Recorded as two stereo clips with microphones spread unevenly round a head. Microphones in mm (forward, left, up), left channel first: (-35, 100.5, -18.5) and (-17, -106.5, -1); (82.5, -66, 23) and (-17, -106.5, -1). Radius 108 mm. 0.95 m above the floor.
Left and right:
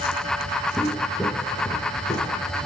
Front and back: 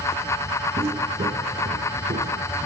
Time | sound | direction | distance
0.8 | footsteps | 155° right | 1.1 m